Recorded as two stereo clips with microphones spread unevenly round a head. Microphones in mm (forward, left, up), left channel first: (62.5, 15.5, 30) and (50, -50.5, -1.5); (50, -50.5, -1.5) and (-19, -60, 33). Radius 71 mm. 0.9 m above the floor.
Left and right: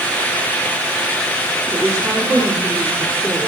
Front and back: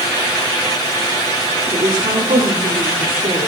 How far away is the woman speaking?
About 2.5 m.